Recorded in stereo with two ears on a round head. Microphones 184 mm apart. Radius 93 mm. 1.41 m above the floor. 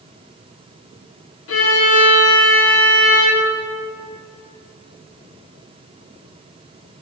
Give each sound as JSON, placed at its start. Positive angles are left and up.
{"t": 1.5, "sound": "a violin", "side_deg": 70, "distance_m": 2.5}